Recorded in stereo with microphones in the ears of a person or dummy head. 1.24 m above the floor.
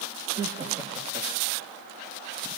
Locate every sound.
0.3 s laughter: 15° right (ahead or behind), 0.8 m; by 1.7 s 35° right (ahead or behind), 2.5 m